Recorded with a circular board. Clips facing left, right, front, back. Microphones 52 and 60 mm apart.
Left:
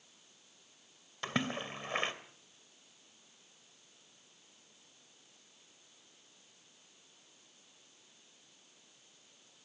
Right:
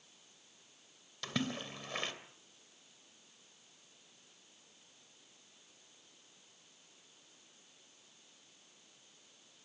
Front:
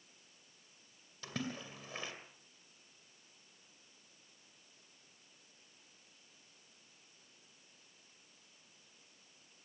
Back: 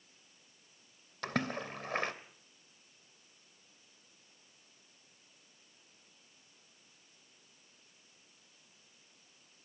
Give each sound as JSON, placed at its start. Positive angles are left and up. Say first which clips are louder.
{"t": 1.2, "sound": "a splash", "louder": "left 3 dB, back 7 dB", "azimuth_deg": 150, "distance_m": 2.5}